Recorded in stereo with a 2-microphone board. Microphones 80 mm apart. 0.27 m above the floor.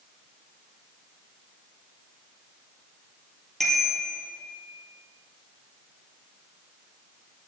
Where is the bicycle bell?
5° left (ahead or behind), 4.5 m.